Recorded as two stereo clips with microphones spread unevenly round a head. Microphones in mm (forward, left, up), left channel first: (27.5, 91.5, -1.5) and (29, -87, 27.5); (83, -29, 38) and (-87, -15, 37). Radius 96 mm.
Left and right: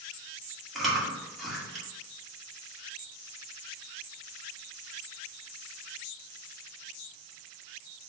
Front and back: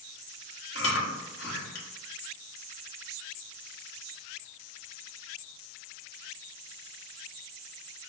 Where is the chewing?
5° right, 2.0 m.